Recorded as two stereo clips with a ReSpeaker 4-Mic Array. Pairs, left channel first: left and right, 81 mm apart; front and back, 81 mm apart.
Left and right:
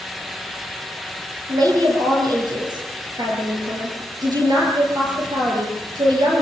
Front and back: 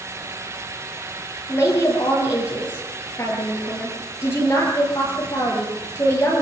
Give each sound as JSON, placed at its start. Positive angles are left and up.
{"t": 1.5, "sound": "a woman speaking", "azimuth_deg": -60, "distance_m": 8.0}